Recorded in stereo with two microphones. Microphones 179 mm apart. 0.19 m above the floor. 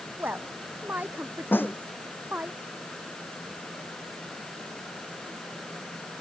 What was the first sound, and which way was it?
A woman speaking, 10° right (ahead or behind).